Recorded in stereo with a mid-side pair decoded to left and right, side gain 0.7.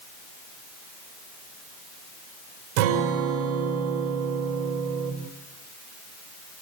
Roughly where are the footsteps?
I don't hear footsteps.